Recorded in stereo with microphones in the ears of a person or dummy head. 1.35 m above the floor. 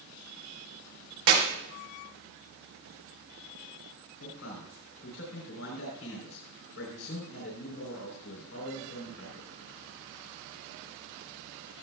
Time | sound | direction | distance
1.3 | a clap | 80° right | 4.5 m
4.2 | a man speaking | 75° left (ahead or behind) | 4 m